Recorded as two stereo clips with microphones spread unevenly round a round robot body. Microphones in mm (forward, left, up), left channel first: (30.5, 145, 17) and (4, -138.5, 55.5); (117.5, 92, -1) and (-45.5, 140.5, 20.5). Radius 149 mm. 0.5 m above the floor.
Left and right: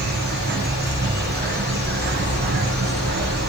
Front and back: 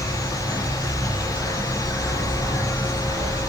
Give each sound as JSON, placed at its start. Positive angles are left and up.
{"t": 0.0, "sound": "an insect", "azimuth_deg": -85, "distance_m": 0.8}